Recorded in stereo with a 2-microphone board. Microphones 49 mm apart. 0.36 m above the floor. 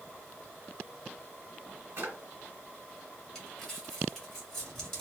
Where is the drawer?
65° right (ahead or behind), 1.2 m.